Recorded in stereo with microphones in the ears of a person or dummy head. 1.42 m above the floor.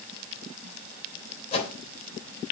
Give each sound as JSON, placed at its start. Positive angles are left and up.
{"t": 1.5, "sound": "a whoosh", "side_deg": 35, "distance_m": 3.0}